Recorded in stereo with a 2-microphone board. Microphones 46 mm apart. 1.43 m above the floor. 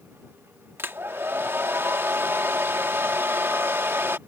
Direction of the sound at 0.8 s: 60° right (ahead or behind).